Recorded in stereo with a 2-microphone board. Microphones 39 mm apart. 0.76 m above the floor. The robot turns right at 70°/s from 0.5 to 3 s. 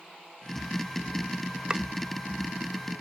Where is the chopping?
25° right (ahead or behind); by 1.8 s 15° right (ahead or behind).